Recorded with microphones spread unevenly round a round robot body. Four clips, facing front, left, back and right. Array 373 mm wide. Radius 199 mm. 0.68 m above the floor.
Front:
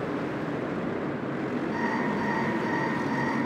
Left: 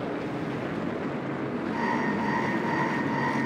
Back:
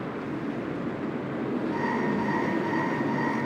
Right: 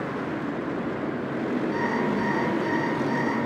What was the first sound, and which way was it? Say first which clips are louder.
An alarm clock: right 2 dB, back 1 dB; 120° right.